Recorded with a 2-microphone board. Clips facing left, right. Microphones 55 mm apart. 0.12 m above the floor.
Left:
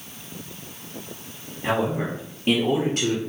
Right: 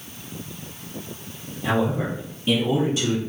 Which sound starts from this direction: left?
A man speaking, at 1.6 s.